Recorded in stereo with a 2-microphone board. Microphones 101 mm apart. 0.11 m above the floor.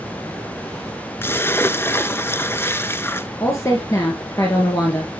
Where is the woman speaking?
30° left (ahead or behind), 2 m.